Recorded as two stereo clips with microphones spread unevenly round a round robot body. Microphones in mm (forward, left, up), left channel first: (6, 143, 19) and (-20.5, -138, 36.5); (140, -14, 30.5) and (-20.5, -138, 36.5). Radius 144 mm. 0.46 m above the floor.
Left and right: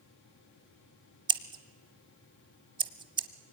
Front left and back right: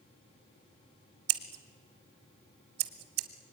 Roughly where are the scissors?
Behind.